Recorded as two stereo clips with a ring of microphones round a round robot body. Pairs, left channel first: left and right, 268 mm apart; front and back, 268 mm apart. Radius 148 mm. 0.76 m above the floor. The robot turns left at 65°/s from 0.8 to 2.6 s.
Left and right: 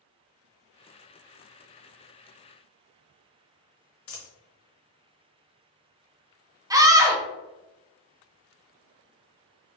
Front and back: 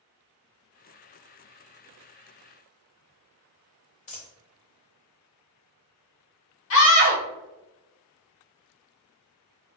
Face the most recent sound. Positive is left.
turn(degrees=-15)